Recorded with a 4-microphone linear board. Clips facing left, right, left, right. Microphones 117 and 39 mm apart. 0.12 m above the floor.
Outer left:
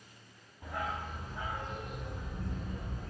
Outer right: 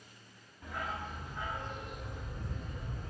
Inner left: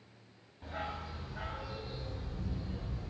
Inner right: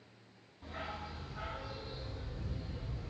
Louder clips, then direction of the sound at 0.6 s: Outer left 2 dB, inner left 3 dB; 35° left (ahead or behind).